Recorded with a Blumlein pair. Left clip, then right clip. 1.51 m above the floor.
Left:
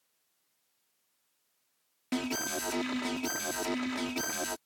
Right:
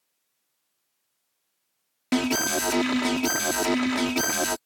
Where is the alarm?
65° right.